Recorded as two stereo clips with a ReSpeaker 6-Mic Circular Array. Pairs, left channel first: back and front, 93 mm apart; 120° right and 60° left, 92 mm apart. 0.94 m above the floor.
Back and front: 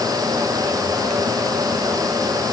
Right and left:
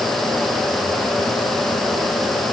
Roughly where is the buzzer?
I don't hear a buzzer.